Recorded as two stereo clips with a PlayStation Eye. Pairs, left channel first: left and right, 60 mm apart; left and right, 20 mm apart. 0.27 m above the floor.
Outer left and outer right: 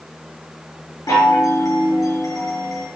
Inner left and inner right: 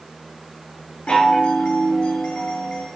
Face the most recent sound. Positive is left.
turn(degrees=65)  # may be behind; listen again after turning